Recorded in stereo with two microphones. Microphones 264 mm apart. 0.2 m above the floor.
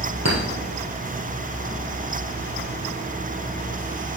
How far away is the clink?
About 3 m.